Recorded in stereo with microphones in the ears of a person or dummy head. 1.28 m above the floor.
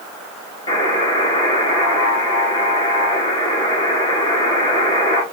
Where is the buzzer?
25° left (ahead or behind), 1.3 m.